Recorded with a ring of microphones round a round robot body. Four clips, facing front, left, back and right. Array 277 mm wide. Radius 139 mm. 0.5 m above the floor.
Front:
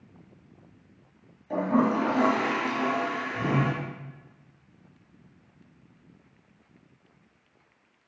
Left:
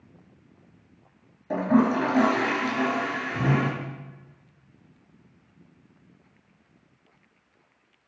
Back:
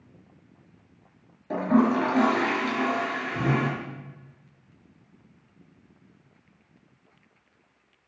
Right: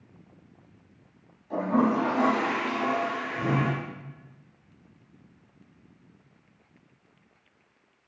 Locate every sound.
1.5 s a toilet flushing: 130° left, 4 m